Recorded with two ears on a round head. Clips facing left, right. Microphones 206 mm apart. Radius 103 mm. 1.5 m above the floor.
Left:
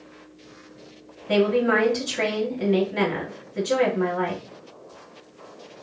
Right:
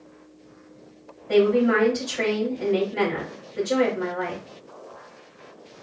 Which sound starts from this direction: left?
A woman speaking, at 1.3 s.